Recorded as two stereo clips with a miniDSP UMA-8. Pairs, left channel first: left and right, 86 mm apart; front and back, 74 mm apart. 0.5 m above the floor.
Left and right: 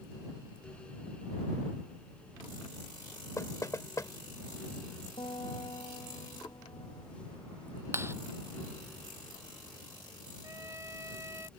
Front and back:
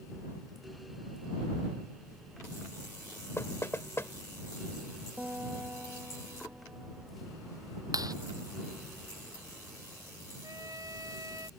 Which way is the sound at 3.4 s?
45° left.